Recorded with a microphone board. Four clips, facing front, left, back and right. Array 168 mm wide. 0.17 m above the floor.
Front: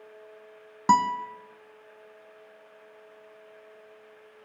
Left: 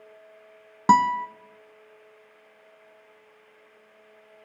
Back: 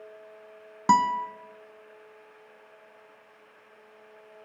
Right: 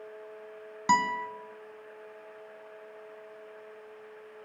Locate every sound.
0.9 s a guitar: 85° left, 0.7 m